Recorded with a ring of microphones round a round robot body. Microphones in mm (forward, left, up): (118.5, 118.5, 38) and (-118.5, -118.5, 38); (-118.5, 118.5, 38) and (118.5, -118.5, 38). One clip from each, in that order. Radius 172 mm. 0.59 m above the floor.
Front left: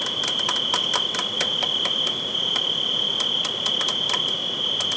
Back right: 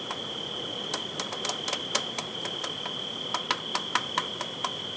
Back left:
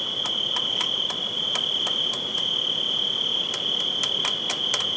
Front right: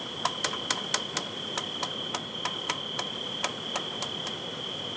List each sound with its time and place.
0.0 s an insect: 95° left